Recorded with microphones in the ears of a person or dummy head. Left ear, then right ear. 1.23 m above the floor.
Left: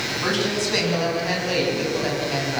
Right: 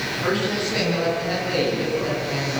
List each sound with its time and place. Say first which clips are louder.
0.2 s a woman speaking: even; 70° left (ahead or behind), 9.5 m; by 2.6 s 80° left, 7 m